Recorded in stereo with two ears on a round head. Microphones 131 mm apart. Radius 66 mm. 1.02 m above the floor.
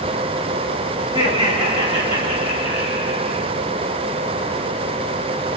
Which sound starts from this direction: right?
Laughter, at 1.0 s.